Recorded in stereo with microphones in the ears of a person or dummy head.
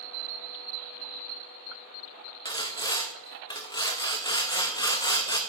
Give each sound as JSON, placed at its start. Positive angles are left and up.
{"t": 2.5, "sound": "sawing", "side_deg": 25, "distance_m": 0.7}